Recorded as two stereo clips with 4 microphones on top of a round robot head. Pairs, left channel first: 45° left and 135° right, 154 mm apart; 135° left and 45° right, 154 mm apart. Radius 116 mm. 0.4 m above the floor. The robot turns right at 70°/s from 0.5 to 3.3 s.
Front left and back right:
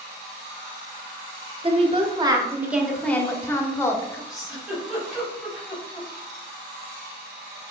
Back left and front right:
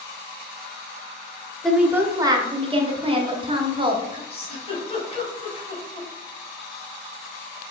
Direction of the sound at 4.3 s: 135° left.